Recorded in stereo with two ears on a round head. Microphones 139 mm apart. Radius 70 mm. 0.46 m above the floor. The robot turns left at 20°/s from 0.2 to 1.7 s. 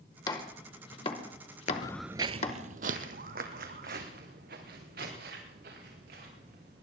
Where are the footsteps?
45° left (ahead or behind), 0.5 m; by 6.8 s 75° right (ahead or behind), 6 m.